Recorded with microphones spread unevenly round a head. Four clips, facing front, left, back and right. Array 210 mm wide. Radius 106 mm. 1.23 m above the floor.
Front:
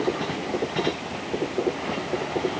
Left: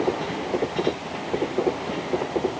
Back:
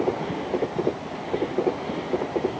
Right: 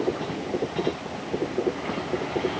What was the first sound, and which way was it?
Only background noise.